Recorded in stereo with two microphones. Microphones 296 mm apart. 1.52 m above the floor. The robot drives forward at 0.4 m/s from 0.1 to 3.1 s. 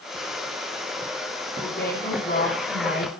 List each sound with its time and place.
1.6 s a woman speaking: 30° left (ahead or behind), 3.5 m; by 3.1 s 35° left (ahead or behind), 3 m